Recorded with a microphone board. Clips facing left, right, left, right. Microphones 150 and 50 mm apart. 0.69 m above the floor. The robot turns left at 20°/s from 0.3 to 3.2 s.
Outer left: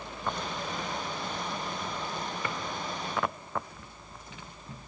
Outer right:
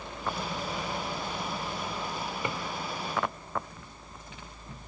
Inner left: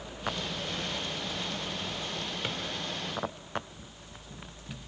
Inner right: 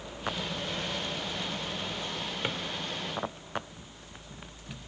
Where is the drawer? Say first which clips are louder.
Outer right 3 dB, inner right 3 dB; 20° right (ahead or behind), 1.4 m; by 2.6 s 25° right (ahead or behind), 1.4 m.